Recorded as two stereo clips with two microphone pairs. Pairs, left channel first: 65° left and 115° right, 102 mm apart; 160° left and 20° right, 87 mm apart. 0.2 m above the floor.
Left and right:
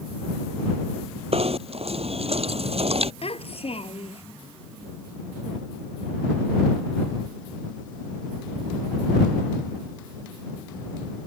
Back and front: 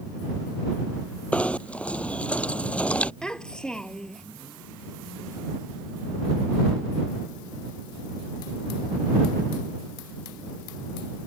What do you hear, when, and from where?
1.3 s knocking: 125° right
3.2 s a child speaking: 75° left